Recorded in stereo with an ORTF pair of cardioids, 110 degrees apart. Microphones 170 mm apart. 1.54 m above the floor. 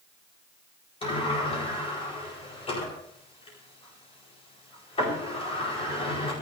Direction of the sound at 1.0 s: 35° left.